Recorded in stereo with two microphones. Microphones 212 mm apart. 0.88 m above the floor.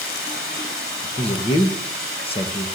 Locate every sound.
0.0 s running water: 80° left, 7 m
1.2 s a man speaking: 25° left (ahead or behind), 1.0 m